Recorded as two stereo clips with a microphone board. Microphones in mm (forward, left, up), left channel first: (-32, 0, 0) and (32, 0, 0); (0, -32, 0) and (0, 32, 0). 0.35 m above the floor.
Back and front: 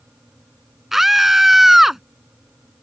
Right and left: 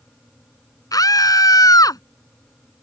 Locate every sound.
0.9 s a scream: 85° right